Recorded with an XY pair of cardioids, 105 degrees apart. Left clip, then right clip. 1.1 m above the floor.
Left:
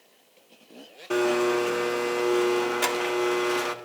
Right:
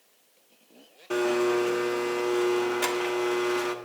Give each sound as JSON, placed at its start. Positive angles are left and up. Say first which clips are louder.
{"t": 1.1, "sound": "a blender", "louder": "left 1 dB", "azimuth_deg": 20, "distance_m": 1.0}